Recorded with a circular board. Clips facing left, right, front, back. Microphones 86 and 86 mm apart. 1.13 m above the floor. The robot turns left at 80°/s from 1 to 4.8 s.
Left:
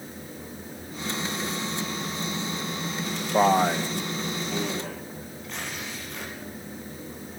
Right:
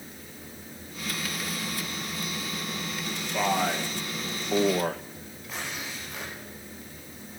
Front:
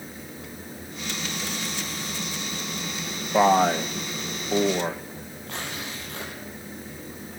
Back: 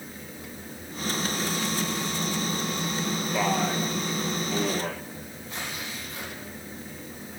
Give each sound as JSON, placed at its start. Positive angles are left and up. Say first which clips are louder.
{"t": 3.3, "sound": "a man speaking", "louder": "left 6 dB, front 9 dB", "azimuth_deg": 50, "distance_m": 1.2}
{"t": 5.5, "sound": "tearing paper", "louder": "even, front 2 dB", "azimuth_deg": -5, "distance_m": 8.5}